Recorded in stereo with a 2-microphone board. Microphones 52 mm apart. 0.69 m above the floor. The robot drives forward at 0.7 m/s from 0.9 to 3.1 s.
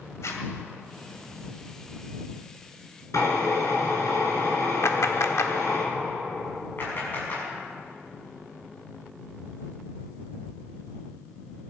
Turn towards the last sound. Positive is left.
turn(degrees=45)  # may be behind; listen again after turning